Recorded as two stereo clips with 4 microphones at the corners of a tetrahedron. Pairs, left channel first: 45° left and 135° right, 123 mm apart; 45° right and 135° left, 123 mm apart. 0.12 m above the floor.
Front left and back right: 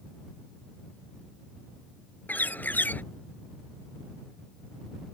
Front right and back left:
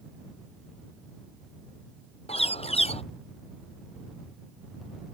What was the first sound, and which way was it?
A bird, 30° right.